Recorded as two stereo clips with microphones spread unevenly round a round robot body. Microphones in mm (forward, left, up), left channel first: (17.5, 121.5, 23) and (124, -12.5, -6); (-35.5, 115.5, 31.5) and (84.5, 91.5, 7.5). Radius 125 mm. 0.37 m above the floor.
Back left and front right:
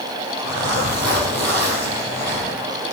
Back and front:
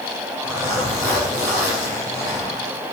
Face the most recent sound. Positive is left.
turn(degrees=-115)